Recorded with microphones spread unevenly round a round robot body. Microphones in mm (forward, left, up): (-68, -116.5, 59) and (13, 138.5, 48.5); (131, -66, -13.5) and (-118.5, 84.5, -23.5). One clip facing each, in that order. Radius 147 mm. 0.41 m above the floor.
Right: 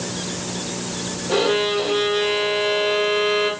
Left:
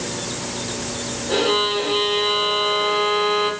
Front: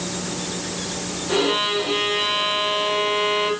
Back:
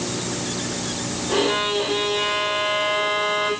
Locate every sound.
1.3 s a violin: 20° right, 1.0 m